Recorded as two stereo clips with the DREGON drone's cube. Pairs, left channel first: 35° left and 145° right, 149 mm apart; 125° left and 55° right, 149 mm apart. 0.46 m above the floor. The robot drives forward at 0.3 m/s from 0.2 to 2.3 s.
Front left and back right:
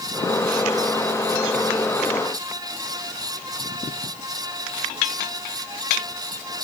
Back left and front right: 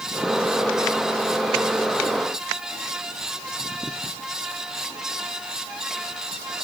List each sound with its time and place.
Only background noise.